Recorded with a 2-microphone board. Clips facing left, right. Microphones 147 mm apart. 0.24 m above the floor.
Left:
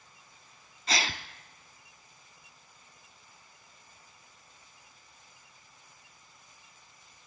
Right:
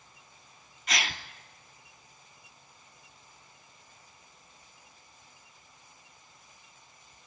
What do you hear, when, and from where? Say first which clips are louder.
0.9 s a gasp: left 2 dB; 30° left (ahead or behind), 0.8 m